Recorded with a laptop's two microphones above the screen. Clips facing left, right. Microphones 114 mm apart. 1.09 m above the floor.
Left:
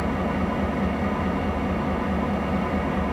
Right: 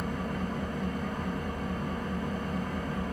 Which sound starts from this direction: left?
An engine running, at 0.0 s.